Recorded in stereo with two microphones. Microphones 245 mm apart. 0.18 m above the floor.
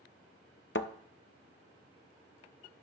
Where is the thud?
50° left (ahead or behind), 0.6 m.